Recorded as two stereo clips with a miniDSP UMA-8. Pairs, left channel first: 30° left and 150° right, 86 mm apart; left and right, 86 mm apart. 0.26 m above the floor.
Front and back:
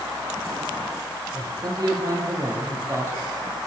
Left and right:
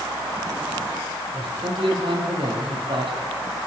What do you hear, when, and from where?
1.3 s a man speaking: 110° right, 8 m; by 3.2 s 90° right, 8.5 m